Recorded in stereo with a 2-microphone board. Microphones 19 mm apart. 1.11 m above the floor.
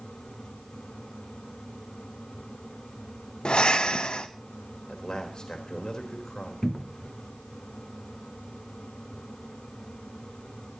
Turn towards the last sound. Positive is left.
turn(degrees=25)  # may be behind; listen again after turning